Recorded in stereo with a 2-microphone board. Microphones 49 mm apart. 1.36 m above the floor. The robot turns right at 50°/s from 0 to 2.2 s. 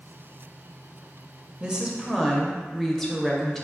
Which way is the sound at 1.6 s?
25° right.